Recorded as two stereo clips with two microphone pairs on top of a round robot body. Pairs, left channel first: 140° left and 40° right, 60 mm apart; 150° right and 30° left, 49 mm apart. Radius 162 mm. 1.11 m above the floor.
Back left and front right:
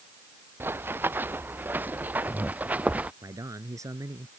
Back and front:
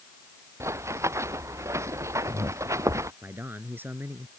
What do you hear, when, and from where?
0.6 s running footsteps: 15° left; by 3.1 s 30° left
3.2 s a man speaking: 10° right